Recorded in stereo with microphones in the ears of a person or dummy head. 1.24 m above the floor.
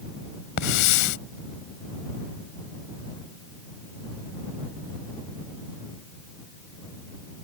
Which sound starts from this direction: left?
A hiss, at 0.6 s.